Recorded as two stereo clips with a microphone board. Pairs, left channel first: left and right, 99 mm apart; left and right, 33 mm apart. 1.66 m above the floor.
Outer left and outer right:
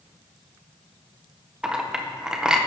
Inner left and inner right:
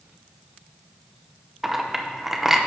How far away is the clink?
About 0.6 m.